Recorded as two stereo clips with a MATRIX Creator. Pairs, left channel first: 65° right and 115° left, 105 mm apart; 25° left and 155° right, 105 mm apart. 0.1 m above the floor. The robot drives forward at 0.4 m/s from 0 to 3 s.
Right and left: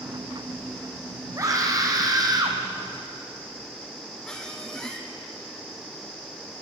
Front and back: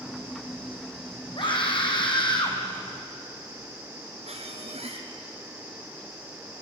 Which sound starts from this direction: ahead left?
A scream, at 1.4 s.